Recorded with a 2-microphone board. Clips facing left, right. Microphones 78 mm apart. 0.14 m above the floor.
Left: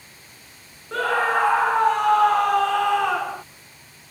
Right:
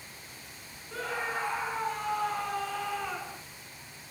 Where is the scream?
85° left.